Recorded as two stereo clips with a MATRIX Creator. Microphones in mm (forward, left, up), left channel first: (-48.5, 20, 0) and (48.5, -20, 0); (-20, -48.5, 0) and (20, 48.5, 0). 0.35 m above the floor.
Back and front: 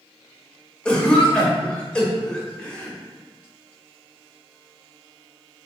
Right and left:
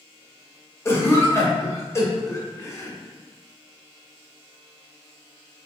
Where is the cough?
135° right, 0.9 m.